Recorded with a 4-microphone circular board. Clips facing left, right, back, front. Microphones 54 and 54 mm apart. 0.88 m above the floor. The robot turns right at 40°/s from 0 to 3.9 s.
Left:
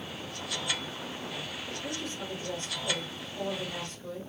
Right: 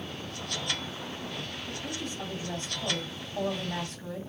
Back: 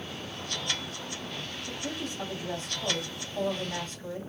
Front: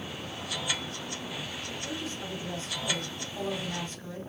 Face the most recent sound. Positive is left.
turn(degrees=-90)